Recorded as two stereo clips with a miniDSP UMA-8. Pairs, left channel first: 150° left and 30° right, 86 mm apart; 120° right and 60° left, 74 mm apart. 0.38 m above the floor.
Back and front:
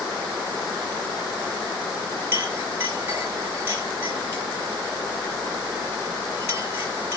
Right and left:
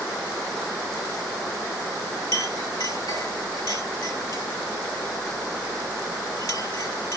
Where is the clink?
90° right, 5 m.